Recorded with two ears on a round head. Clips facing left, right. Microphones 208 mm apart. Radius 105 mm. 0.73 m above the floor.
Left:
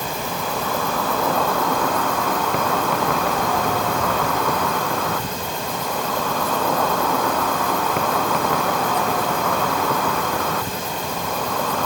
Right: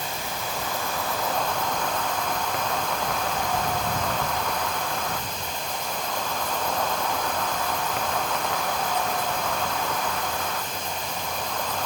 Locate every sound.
0.0 s an insect: 50° left (ahead or behind)